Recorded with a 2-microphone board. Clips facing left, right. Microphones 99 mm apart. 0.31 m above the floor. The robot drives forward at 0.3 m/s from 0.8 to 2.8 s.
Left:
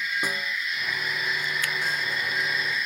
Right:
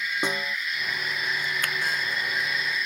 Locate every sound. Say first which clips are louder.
0.2 s a snare drum: right 2 dB; 25° right (ahead or behind)
1.6 s a finger snap: even; 50° right (ahead or behind)